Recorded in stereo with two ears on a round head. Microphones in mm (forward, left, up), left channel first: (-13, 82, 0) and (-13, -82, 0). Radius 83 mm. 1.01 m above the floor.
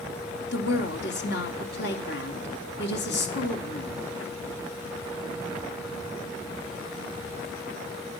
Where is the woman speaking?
70° left (ahead or behind), 3.5 m.